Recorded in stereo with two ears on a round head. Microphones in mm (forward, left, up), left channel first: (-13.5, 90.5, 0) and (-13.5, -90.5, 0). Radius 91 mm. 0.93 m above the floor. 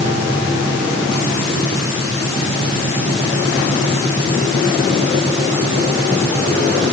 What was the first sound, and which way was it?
Only background noise.